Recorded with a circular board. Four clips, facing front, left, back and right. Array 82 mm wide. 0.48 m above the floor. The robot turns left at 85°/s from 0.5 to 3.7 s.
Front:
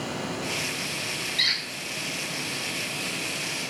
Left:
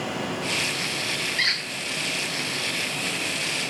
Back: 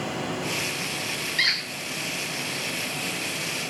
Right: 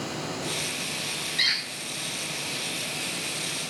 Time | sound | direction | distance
1.4 | a squeak | 145° left | 0.6 m